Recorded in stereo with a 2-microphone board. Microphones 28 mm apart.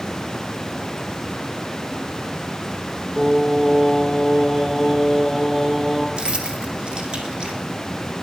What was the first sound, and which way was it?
Singing, centre (ahead or behind).